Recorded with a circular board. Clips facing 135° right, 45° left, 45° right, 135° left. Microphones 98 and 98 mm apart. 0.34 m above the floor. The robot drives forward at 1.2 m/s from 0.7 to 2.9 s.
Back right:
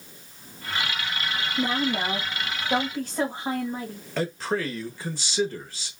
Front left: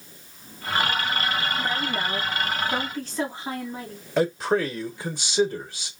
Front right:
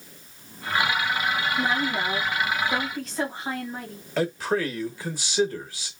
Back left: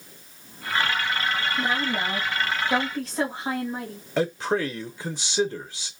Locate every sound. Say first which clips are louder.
1.6 s a woman speaking: back right 2 dB, front right 1 dB; 150° right, 1.8 m; by 4.0 s 165° right, 3 m
4.2 s a man speaking: front left 5 dB, back left 1 dB; 90° left, 1.0 m